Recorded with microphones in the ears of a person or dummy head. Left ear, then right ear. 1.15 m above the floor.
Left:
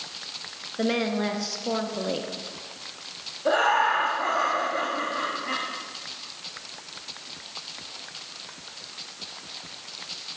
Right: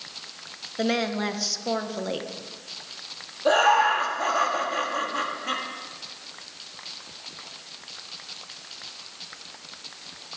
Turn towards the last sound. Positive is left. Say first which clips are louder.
# right 2 dB
turn(degrees=-75)  # may be behind; listen again after turning